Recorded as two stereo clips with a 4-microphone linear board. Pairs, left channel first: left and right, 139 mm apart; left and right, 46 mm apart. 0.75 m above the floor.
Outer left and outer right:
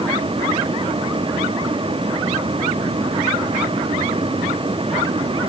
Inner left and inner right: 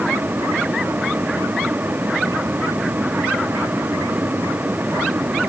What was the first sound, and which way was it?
Only background noise.